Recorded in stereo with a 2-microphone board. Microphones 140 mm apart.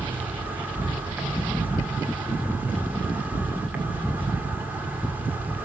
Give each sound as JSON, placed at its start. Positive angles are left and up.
{"t": 0.0, "sound": "an insect", "side_deg": -10, "distance_m": 2.0}